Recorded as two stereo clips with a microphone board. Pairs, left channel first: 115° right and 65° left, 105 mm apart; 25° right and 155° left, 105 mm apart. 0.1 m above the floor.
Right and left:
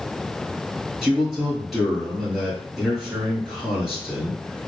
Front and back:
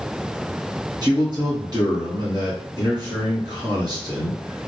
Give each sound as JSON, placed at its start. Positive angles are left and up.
{"t": 1.0, "sound": "a man speaking", "azimuth_deg": 150, "distance_m": 1.5}